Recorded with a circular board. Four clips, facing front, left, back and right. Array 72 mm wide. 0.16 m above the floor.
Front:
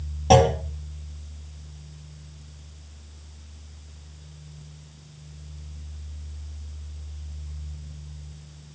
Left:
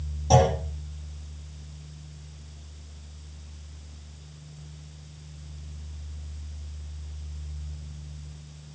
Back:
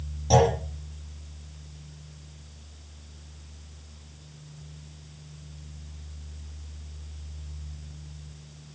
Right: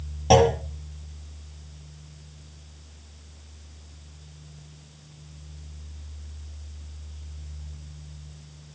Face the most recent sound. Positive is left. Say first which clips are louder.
# right 3 dB, front 4 dB
turn(degrees=-45)